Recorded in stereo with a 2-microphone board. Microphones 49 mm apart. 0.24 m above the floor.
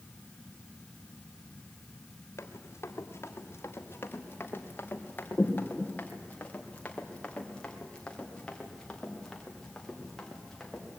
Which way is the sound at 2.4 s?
65° left (ahead or behind).